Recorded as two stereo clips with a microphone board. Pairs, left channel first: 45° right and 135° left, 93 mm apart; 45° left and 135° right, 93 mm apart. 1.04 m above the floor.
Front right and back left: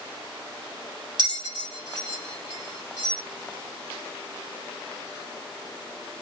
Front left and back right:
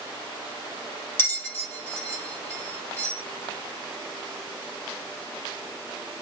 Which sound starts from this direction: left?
A bell, at 1.2 s.